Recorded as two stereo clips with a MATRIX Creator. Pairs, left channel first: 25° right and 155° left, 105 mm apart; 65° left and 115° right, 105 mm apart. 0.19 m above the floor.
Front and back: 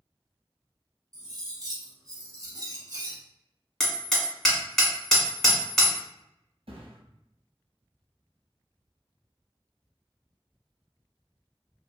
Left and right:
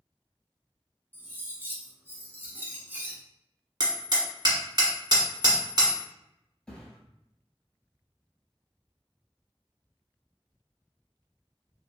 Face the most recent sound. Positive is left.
turn(degrees=150)